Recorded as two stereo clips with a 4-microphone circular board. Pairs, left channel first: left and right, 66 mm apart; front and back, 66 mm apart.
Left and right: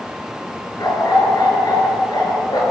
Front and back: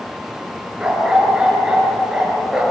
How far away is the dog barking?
About 5 m.